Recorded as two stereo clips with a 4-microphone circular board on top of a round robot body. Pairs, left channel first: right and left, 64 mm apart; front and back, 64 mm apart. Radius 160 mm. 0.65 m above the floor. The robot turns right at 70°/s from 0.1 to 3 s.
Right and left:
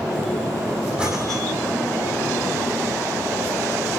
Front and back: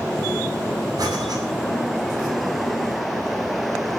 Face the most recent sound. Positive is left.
turn(degrees=-60)